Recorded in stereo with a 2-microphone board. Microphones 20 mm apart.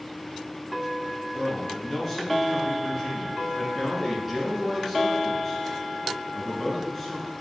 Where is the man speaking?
5° left (ahead or behind), 1.1 m.